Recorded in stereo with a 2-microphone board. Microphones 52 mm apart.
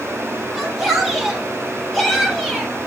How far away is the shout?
About 8 m.